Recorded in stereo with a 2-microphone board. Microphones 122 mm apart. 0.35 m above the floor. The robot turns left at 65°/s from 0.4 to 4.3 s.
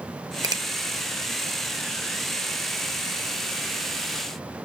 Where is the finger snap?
35° right (ahead or behind), 0.7 m.